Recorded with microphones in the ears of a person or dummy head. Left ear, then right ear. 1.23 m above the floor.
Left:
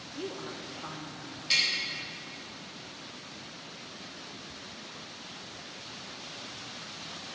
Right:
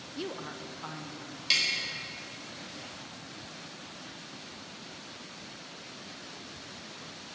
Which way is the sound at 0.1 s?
20° right (ahead or behind).